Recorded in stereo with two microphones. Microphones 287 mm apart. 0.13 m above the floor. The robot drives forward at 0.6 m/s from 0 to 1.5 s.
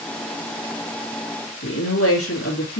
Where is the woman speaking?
50° left (ahead or behind), 2.5 m.